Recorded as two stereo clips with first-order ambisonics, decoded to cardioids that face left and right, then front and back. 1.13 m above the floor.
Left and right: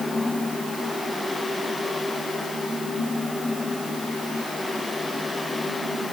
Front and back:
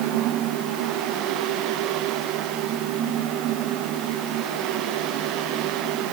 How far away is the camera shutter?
No camera shutter in this recording.